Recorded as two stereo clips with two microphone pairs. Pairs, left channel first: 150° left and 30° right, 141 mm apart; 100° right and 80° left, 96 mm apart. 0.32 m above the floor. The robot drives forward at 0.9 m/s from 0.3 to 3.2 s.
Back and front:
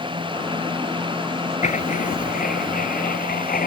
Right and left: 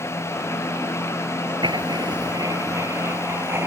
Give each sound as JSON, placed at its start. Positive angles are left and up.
{"t": 1.6, "sound": "writing", "azimuth_deg": 115}